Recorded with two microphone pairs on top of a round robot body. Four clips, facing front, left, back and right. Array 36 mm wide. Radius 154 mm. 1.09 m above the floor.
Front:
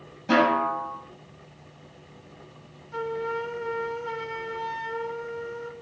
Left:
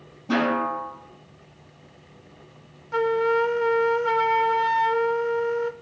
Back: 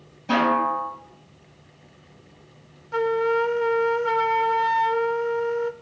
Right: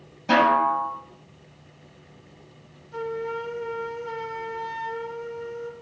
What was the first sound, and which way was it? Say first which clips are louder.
A snare drum: right 5 dB, back 1 dB; 90° right.